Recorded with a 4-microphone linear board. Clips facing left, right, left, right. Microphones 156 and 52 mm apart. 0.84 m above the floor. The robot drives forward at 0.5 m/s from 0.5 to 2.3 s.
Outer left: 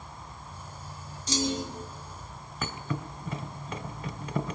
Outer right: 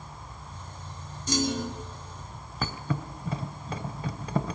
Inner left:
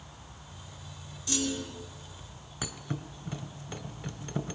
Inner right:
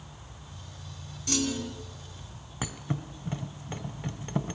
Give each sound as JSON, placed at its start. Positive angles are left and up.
{"t": 1.3, "sound": "a clunk", "side_deg": -55, "distance_m": 3.5}
{"t": 2.6, "sound": "a thud", "side_deg": -35, "distance_m": 1.5}